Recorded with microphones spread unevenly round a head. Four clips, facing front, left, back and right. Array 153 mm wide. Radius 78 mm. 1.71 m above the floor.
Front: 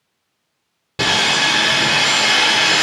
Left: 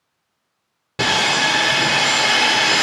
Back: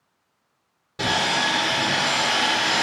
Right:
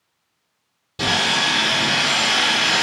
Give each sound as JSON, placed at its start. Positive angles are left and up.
{"t": 1.0, "sound": "sawing", "azimuth_deg": 60, "distance_m": 2.0}